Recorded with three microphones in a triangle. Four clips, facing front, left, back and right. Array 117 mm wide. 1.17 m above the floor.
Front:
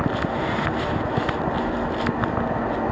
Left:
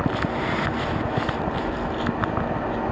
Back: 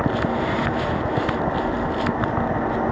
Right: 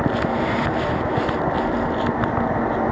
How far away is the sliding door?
About 1.1 m.